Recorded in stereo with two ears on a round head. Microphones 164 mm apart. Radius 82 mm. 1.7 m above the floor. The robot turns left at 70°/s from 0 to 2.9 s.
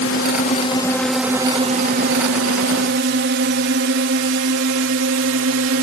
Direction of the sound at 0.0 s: 70° left (ahead or behind).